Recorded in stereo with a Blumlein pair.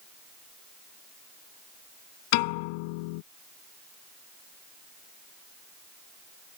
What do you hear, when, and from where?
2.3 s a piano: 45° left